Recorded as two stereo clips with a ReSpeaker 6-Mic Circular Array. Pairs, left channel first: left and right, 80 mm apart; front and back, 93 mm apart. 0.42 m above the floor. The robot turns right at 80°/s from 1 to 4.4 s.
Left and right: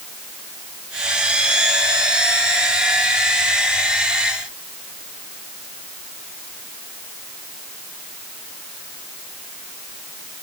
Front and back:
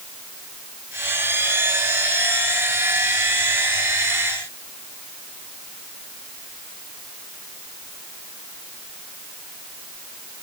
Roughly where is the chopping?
No chopping in this recording.